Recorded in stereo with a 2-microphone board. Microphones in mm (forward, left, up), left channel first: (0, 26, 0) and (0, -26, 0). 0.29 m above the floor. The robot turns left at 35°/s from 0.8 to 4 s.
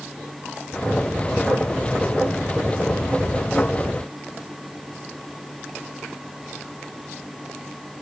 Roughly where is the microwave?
No microwave in this recording.